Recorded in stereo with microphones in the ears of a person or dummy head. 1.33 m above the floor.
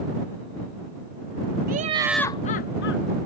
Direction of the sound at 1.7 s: 45° right (ahead or behind).